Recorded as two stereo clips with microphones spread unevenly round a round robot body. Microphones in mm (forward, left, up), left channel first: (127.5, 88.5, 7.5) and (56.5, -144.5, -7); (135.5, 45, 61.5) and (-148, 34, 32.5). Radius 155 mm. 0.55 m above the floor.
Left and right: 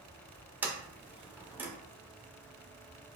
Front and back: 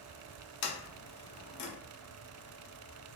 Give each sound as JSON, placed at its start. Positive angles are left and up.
{"t": 0.6, "sound": "a sliding door", "azimuth_deg": -25, "distance_m": 1.0}